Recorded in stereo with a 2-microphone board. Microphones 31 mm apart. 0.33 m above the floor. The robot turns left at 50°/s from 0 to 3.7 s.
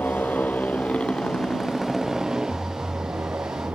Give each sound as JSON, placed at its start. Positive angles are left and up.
{"t": 0.0, "sound": "a motorcycle", "azimuth_deg": 95}